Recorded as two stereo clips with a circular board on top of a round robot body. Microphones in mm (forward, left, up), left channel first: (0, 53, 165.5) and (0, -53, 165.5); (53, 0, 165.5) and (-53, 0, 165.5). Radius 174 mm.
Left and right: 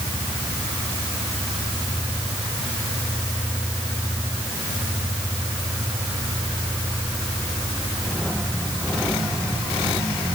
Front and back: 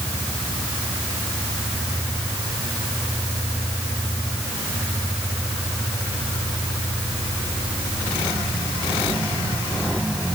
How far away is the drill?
I don't hear a drill.